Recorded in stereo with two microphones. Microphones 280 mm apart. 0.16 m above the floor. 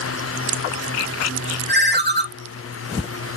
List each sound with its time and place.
1.7 s a ringtone: 35° right (ahead or behind), 0.6 m